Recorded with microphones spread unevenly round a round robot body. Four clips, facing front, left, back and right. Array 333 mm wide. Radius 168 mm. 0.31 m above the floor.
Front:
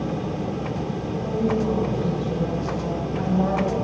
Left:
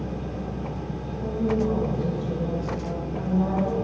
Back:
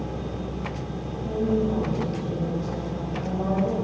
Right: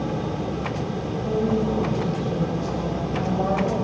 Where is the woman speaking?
90° left, 2.5 m; by 3.9 s 75° right, 2.5 m.